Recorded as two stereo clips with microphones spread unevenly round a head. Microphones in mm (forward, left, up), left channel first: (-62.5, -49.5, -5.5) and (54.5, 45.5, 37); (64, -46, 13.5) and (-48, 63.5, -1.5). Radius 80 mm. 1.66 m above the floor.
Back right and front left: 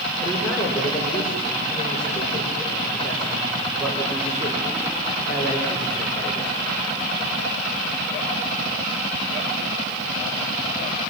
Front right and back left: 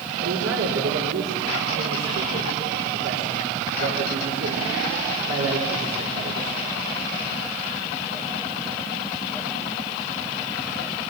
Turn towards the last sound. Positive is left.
turn(degrees=135)